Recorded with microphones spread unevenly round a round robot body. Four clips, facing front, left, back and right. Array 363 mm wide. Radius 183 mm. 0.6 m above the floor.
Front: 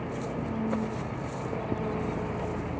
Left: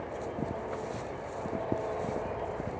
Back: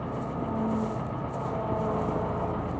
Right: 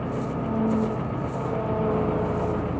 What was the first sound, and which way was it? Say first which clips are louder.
An engine running: right 7 dB, back 1 dB; 95° right.